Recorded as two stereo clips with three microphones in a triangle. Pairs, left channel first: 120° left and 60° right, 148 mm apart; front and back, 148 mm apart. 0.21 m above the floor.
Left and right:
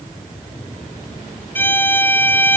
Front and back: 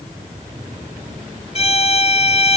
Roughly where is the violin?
Ahead left.